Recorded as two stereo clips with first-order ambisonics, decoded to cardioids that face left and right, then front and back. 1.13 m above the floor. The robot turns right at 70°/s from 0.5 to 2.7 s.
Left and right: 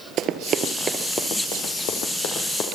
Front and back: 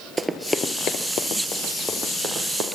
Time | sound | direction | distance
0.2 | running footsteps | 105° right | 1.3 m